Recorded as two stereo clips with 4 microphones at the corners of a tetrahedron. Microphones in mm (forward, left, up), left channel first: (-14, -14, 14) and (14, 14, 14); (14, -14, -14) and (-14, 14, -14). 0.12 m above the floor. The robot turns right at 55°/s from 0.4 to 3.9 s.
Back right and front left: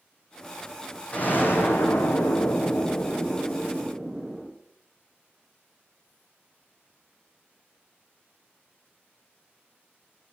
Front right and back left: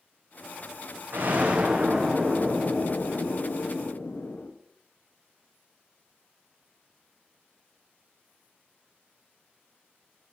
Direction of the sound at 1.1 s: 175° left.